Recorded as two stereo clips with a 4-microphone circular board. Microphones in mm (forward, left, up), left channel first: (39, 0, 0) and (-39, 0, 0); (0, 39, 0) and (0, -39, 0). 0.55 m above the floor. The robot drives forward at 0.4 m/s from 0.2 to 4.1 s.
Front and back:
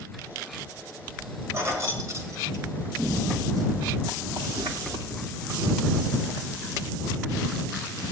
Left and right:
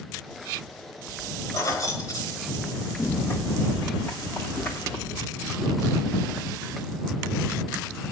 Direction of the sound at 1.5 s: 130° left.